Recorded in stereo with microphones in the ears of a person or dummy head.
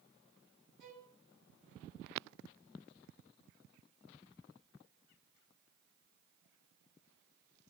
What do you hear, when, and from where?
0.8 s a violin: 60° right (ahead or behind), 1.9 m